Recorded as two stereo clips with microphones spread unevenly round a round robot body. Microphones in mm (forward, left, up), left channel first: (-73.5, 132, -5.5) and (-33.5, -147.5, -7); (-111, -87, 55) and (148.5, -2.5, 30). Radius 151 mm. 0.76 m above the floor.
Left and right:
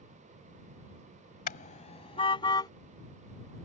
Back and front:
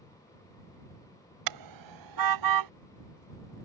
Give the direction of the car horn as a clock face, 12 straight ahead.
11 o'clock.